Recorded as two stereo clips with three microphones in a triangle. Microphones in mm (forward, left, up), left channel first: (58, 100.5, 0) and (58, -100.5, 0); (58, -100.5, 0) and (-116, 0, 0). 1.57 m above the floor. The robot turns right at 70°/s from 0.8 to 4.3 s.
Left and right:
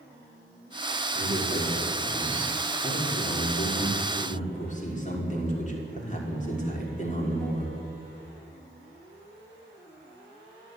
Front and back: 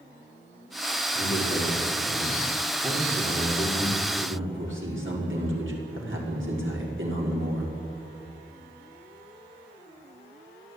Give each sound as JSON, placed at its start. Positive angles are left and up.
{"t": 1.1, "sound": "a man speaking", "azimuth_deg": -80, "distance_m": 5.5}